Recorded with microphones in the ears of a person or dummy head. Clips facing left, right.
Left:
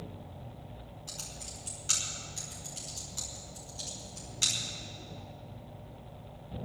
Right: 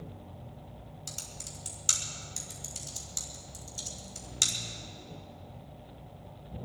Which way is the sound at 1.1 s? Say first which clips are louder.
Even; 75° right (ahead or behind).